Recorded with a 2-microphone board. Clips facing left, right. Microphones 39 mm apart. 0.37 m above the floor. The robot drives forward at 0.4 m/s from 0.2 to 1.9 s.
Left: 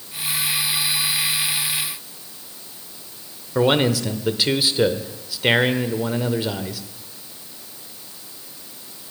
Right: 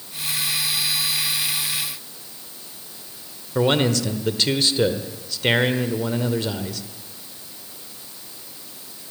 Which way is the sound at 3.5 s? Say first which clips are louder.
Left 1 dB; 10° left (ahead or behind).